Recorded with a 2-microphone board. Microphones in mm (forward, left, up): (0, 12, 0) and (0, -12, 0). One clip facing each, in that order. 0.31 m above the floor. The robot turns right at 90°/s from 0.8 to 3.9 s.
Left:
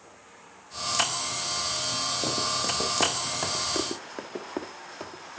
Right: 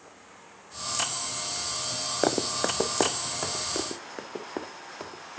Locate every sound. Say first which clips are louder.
2.2 s running footsteps: right 5 dB; 65° right (ahead or behind), 0.7 m; by 3.6 s 15° left (ahead or behind), 1.3 m
3.8 s running footsteps: left 2 dB; 5° right (ahead or behind), 0.8 m; by 5.4 s 10° right (ahead or behind), 1.7 m